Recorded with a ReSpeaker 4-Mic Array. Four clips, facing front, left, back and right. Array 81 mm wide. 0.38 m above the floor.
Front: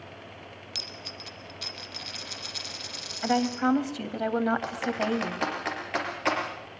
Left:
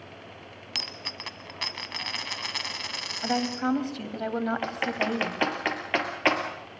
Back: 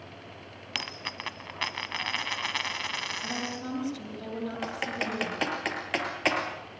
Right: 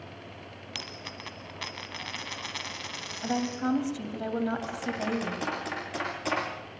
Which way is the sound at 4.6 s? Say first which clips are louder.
Left 4 dB, front 4 dB; 105° left.